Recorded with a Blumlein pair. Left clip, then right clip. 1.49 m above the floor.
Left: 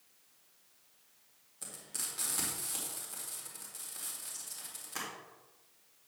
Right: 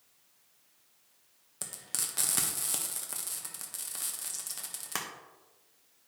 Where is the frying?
35° right, 1.3 m.